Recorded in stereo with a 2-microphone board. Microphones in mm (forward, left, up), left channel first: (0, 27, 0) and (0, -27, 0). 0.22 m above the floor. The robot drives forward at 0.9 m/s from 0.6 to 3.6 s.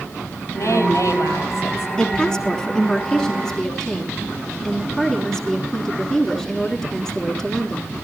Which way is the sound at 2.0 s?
10° left (ahead or behind).